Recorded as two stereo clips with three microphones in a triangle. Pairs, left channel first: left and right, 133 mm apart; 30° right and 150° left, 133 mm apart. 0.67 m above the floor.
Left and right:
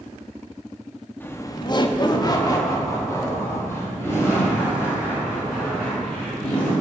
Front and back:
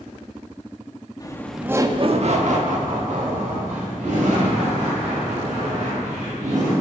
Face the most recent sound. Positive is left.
turn(degrees=165)